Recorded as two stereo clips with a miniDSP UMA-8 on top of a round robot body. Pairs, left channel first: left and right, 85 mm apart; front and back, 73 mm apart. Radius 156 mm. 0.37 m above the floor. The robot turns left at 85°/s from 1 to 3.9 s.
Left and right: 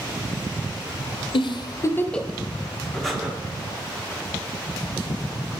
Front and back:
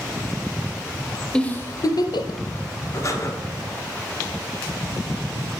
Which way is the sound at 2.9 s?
15° left.